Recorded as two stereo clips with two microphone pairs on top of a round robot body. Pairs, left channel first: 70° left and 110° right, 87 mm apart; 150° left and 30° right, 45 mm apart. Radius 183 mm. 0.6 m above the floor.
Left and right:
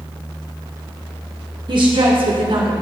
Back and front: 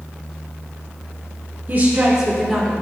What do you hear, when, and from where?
1.7 s a woman speaking: 80° right, 2.0 m; by 2.7 s 125° right, 2 m